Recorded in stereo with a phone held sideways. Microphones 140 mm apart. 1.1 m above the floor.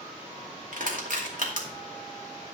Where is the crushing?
75° right (ahead or behind), 2.5 m.